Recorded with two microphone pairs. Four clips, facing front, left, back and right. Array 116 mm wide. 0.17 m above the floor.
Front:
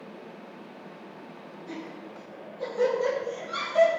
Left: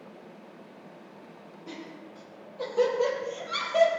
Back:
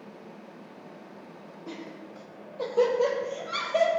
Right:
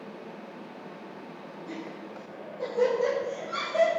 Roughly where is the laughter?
Behind left.